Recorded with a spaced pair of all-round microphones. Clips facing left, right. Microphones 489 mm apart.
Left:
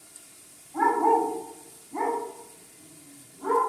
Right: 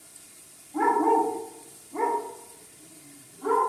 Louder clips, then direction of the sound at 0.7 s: Right 1 dB; 45° right (ahead or behind).